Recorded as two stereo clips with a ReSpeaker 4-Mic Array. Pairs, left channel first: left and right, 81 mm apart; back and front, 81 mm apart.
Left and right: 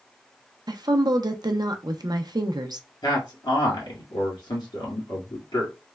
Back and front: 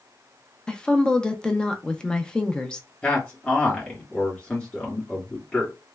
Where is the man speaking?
110° left, 1.6 m.